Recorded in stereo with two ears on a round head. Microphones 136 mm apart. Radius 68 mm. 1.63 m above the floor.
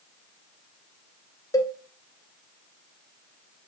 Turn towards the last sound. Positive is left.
turn(degrees=25)  # may be behind; listen again after turning